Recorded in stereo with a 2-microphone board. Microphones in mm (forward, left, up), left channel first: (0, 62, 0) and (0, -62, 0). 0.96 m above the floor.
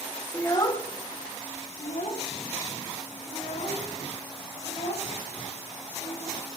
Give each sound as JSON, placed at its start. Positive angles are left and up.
{"t": 0.3, "sound": "a child speaking", "side_deg": 20, "distance_m": 0.8}